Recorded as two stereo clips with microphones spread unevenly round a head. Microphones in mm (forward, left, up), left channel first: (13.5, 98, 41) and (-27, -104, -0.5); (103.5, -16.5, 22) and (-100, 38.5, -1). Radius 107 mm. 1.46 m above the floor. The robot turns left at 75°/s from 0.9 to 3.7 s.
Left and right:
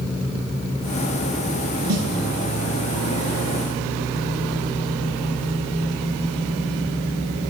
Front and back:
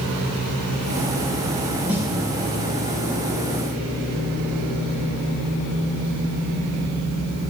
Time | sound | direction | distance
1.9 | a snare drum | 110° right | 2 m